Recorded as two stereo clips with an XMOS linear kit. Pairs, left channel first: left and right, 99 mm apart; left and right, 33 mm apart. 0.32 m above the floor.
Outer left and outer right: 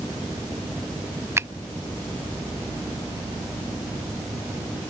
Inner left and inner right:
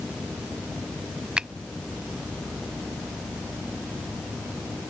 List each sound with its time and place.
1.4 s a finger snap: 25° right (ahead or behind)